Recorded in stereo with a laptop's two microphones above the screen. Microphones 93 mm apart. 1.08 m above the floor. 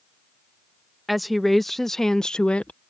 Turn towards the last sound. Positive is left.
turn(degrees=15)  # may be behind; listen again after turning